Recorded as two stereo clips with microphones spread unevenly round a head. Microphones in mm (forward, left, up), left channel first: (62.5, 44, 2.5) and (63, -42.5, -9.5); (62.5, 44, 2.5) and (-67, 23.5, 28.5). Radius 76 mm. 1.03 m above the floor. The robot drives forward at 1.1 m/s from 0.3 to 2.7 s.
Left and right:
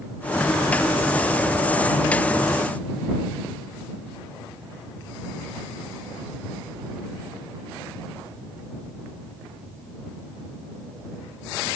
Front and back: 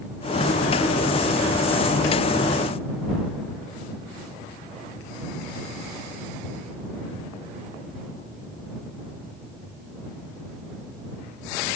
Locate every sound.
Only background noise.